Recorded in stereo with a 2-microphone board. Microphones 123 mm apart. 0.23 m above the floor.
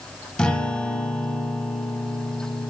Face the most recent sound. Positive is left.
turn(degrees=5)  # may be behind; listen again after turning